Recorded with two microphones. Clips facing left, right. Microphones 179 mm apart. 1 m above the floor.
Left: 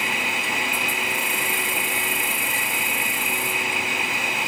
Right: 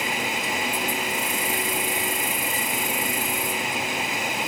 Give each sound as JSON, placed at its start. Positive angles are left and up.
{"t": 0.0, "sound": "an insect", "side_deg": -40, "distance_m": 1.9}